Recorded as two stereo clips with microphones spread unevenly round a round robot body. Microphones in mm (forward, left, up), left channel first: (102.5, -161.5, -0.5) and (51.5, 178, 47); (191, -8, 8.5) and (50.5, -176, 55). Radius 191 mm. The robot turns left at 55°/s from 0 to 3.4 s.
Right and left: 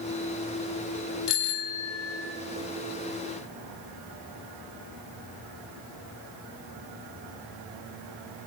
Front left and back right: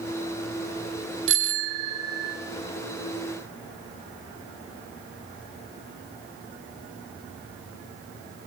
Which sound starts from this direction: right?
A bicycle bell, at 1.3 s.